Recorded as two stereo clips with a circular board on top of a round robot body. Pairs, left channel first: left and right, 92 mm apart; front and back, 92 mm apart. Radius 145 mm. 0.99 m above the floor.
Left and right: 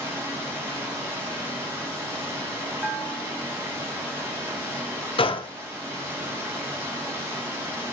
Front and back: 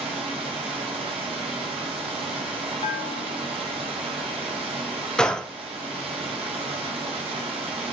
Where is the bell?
5° right, 0.5 m.